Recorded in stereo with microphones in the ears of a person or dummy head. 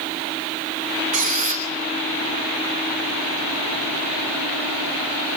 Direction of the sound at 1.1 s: 35° right (ahead or behind).